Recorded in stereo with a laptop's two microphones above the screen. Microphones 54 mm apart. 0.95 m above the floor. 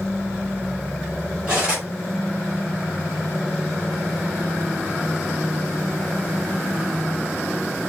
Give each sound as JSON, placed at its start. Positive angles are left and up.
{"t": 1.5, "sound": "cutlery clinking", "side_deg": -20, "distance_m": 1.3}